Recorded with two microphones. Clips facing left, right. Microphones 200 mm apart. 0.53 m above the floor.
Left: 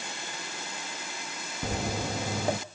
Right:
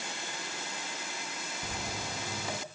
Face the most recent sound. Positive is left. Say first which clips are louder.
# left 10 dB
turn(degrees=65)  # may be behind; listen again after turning